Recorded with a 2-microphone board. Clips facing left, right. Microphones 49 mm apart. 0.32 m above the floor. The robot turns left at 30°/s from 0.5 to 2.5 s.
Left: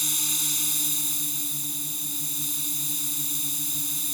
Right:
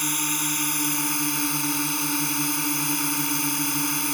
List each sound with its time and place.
0.0 s a drone: 50° right; by 4.1 s 110° right